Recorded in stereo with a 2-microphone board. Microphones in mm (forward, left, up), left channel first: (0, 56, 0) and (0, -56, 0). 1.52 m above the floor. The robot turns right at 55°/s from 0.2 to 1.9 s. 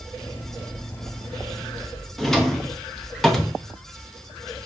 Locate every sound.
2.2 s a drawer: 5° left (ahead or behind), 0.6 m